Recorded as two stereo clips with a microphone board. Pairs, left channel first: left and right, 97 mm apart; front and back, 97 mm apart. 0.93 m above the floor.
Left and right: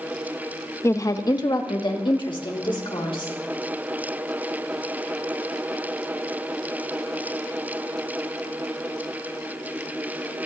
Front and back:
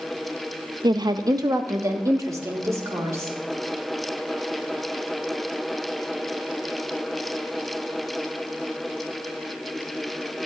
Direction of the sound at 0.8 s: 150° left.